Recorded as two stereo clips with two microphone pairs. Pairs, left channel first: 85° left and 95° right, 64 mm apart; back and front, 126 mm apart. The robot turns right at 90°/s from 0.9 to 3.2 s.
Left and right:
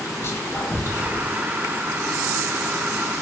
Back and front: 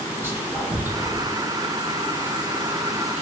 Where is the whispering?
65° left, 0.7 m; by 1.3 s 100° left, 0.7 m.